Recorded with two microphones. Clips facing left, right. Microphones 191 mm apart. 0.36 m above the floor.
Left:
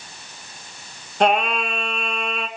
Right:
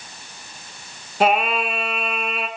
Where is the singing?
5° right (ahead or behind), 0.9 m.